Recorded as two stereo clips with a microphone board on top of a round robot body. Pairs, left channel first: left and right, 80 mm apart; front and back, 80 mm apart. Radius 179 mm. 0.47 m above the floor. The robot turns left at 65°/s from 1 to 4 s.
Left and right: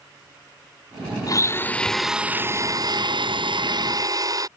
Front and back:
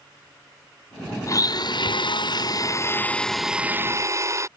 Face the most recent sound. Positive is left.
turn(degrees=-130)